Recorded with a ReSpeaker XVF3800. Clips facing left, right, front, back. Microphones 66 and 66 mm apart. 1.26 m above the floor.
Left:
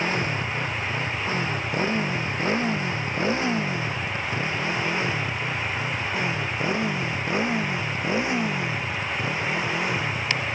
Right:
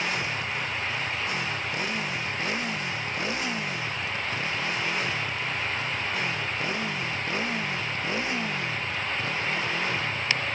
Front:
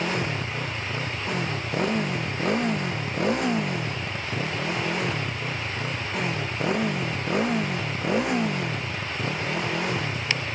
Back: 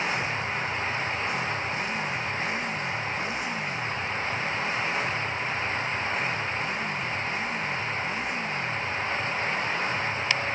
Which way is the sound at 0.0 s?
35° left.